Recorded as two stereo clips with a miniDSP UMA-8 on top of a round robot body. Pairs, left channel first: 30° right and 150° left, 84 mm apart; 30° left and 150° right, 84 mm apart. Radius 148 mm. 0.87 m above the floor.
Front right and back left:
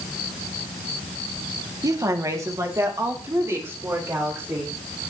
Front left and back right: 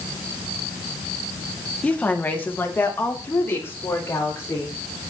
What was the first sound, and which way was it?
A woman speaking, 105° left.